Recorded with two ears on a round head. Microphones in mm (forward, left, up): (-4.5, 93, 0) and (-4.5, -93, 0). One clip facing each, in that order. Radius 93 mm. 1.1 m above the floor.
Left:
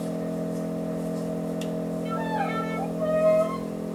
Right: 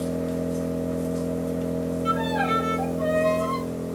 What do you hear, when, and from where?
0.0 s an engine running: 45° right (ahead or behind), 5.5 m
2.0 s a violin: 70° right (ahead or behind), 1.9 m